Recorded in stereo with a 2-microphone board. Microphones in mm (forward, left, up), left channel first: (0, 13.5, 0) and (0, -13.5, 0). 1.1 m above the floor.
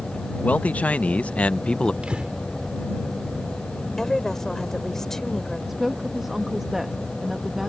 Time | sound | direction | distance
0.4 | a man speaking | 70° left (ahead or behind) | ?
2.0 | breathing | 40° right (ahead or behind) | ?
4.0 | a woman speaking | 15° left (ahead or behind) | ?
5.7 | a woman speaking | 10° right (ahead or behind) | ?